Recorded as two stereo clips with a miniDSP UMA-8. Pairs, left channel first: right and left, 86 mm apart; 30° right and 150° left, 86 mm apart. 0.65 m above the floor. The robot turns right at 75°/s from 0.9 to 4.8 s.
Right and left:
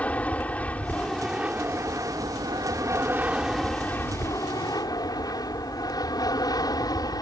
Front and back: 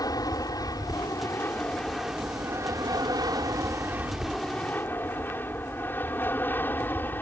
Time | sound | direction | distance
0.0 | an aircraft | 20° right | ?